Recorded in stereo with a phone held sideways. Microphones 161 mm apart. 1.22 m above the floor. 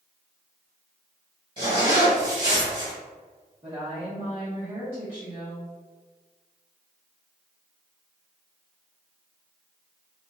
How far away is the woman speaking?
About 1.2 m.